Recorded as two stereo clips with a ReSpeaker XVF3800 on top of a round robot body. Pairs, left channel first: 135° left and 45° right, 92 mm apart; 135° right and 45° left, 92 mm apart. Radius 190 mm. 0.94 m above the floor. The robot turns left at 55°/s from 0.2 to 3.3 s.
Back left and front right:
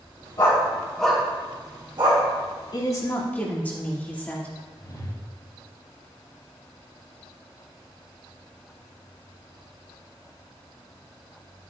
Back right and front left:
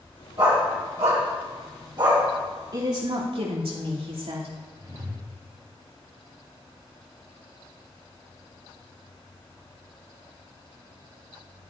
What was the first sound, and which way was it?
A dog barking, 90° left.